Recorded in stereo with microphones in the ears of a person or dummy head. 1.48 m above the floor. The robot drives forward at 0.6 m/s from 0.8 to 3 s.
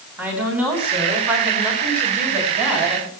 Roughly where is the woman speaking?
Centre.